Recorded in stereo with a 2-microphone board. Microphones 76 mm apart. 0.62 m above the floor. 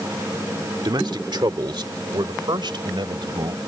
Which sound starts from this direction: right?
A man speaking, at 0.8 s.